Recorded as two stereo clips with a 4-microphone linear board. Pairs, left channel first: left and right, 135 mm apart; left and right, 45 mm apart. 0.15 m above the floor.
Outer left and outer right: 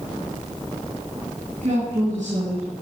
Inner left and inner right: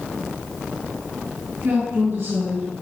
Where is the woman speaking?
65° right (ahead or behind), 3 m.